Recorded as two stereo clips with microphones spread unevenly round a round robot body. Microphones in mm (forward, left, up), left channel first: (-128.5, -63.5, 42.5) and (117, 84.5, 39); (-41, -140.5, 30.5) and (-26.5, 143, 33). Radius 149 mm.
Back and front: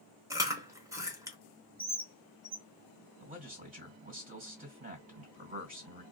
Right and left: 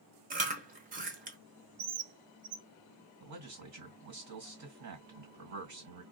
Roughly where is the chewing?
Left.